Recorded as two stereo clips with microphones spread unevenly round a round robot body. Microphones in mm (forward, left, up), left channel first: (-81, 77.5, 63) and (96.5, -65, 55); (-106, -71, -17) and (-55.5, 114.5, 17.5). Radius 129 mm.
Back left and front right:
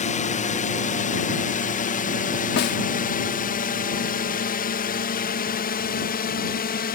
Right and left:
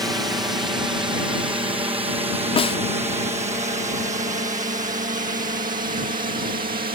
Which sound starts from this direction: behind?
A snare drum, at 2.6 s.